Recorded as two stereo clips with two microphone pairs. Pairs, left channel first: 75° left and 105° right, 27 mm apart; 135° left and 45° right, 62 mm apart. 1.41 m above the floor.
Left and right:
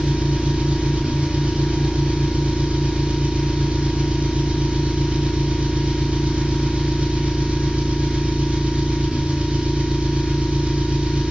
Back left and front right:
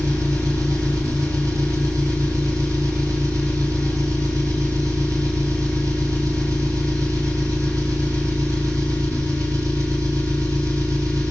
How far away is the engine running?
About 6 m.